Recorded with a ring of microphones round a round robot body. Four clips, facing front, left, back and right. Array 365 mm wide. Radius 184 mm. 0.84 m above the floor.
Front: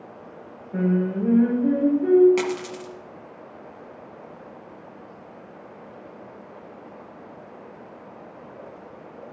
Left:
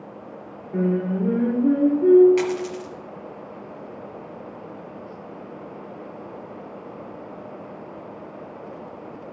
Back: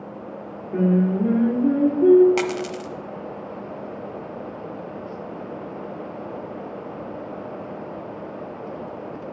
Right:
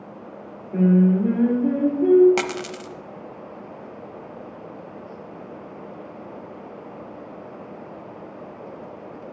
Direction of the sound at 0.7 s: 170° right.